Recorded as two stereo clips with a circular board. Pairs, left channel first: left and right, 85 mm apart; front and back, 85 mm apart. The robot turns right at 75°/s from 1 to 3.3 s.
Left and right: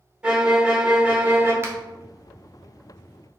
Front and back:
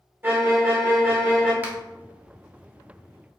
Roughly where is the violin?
Behind right.